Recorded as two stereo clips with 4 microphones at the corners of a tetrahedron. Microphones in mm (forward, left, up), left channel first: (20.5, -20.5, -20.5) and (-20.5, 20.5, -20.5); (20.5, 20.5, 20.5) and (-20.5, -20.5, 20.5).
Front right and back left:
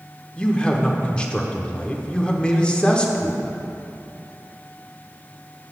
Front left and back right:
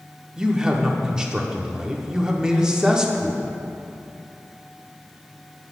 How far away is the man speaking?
About 0.7 m.